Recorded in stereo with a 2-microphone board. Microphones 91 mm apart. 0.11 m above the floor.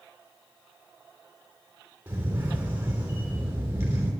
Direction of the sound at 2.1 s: 20° right (ahead or behind).